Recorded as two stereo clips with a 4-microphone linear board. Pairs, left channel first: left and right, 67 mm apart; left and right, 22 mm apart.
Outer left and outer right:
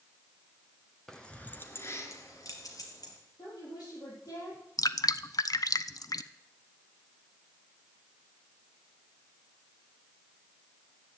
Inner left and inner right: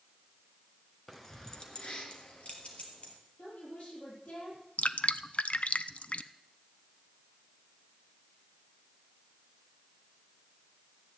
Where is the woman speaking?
75° left (ahead or behind), 8 m.